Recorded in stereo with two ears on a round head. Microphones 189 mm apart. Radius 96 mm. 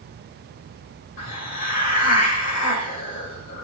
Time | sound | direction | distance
1.2 | a hiss | 40° left (ahead or behind) | 1.9 m